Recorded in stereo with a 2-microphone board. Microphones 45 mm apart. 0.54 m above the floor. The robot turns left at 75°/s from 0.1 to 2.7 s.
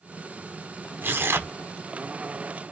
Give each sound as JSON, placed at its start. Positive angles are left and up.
{"t": 1.0, "sound": "tearing paper", "azimuth_deg": -55, "distance_m": 0.8}